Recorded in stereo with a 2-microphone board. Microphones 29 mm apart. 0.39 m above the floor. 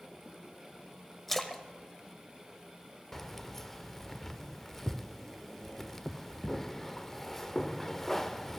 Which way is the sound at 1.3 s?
10° left (ahead or behind).